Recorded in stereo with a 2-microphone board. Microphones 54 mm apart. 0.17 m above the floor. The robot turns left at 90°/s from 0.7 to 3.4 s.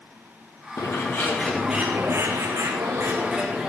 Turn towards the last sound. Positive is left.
turn(degrees=-165)